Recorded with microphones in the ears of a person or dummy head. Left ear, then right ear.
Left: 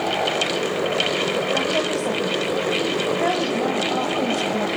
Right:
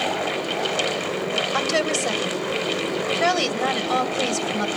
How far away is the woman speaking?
About 1.5 m.